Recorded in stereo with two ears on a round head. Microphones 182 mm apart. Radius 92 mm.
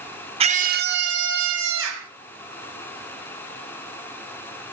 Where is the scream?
30° right (ahead or behind), 0.9 m; by 2.1 s 70° right (ahead or behind), 3 m.